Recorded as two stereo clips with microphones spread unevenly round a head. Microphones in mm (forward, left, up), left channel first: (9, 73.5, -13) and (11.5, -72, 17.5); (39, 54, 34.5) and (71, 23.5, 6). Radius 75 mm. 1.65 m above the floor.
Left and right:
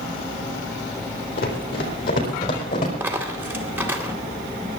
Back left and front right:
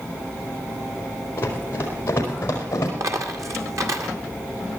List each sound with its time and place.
1.4 s running footsteps: 125° left, 4.5 m; by 2.9 s 140° left, 5.5 m
3.0 s a dropped coin: 20° right, 2.5 m